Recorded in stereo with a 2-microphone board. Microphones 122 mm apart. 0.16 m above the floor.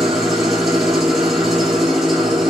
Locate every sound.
0.0 s an engine running: centre (ahead or behind), 2 m